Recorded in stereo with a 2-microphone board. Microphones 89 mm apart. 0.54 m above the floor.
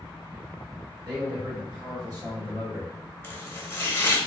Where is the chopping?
25° left (ahead or behind), 0.8 m.